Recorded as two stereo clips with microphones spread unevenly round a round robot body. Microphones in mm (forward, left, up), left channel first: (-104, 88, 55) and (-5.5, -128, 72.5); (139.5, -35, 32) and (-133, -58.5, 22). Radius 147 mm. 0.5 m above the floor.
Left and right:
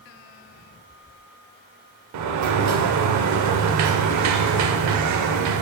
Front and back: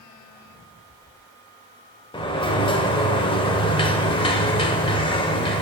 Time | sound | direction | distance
2.1 | a sliding door | 70° right | 0.7 m